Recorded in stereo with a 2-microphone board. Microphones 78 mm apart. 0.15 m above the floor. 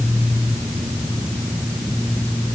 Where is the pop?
I don't hear a pop.